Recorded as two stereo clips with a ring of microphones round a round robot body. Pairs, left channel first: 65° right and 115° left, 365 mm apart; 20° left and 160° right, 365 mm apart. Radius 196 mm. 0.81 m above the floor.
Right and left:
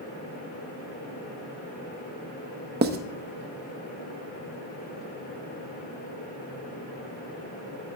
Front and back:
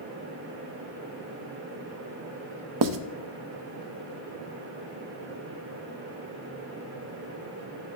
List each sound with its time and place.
2.8 s writing: 175° left, 0.7 m